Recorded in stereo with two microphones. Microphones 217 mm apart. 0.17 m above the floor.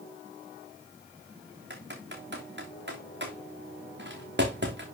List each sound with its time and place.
1.7 s typing on a keyboard: 55° right (ahead or behind), 2.5 m